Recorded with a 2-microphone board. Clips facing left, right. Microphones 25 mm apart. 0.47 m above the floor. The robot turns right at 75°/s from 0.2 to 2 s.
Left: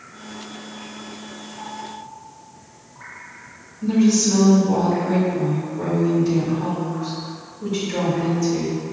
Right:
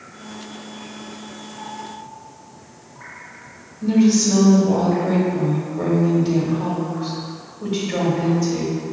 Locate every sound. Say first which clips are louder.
3.8 s a woman speaking: right 1 dB; 50° right (ahead or behind), 1.2 m